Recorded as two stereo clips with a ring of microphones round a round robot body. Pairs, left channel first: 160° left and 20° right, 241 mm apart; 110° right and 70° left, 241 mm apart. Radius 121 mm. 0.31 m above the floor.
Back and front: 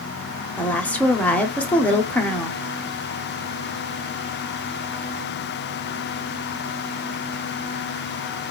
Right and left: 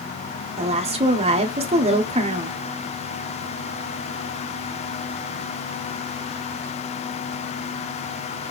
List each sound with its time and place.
0.6 s a woman speaking: 80° left, 1.0 m